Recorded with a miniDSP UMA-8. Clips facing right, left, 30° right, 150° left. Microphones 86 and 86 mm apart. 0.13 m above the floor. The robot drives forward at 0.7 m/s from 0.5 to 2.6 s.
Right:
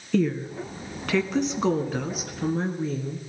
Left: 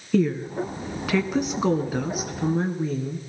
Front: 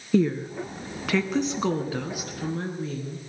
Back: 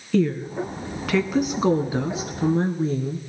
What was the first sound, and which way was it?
A woman speaking, 15° left.